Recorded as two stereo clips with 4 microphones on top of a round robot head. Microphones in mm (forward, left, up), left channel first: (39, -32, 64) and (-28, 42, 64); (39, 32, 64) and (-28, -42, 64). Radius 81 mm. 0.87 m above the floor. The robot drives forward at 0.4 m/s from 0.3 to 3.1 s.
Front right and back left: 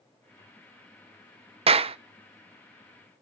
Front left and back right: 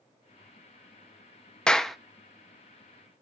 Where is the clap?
130° left, 0.7 m; by 2.0 s 135° left, 0.8 m.